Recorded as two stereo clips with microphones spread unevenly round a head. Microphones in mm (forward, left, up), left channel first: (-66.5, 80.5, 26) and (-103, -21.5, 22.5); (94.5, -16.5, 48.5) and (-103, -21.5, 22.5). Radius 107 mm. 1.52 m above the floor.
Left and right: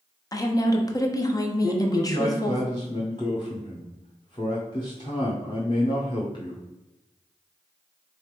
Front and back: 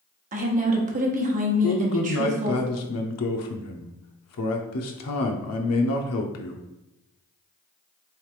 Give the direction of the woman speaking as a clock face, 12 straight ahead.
8 o'clock.